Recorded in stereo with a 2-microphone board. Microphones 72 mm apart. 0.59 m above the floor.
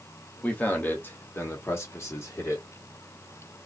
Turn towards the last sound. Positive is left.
turn(degrees=40)  # may be behind; listen again after turning